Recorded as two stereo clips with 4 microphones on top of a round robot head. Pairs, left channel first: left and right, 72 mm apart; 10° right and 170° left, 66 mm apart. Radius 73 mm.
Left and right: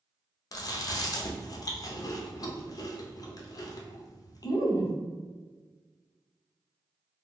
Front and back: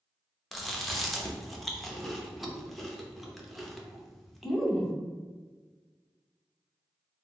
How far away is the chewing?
About 0.6 m.